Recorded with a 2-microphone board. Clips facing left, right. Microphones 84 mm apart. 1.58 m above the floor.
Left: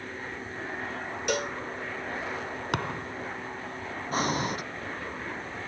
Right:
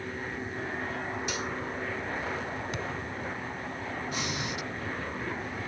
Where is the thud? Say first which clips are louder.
Left 4 dB; 65° left (ahead or behind).